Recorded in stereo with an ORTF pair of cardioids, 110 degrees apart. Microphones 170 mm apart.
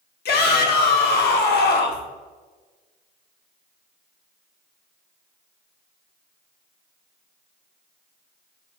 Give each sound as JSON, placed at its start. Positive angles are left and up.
{"t": 0.2, "sound": "a shout", "azimuth_deg": 70, "distance_m": 0.9}